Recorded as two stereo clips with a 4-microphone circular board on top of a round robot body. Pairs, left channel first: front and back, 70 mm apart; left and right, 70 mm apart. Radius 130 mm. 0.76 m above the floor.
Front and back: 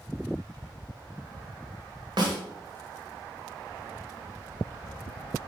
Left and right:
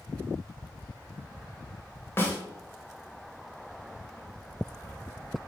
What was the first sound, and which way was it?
A snare drum, 150° left.